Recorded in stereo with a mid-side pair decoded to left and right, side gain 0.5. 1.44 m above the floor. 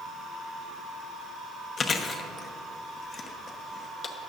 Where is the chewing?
45° left, 0.8 m.